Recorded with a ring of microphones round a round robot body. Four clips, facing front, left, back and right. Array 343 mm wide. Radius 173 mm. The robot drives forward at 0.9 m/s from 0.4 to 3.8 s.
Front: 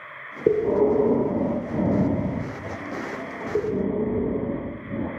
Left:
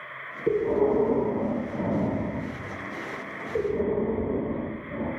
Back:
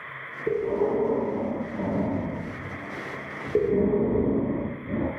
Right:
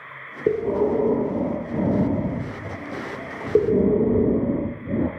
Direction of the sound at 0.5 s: 30° right.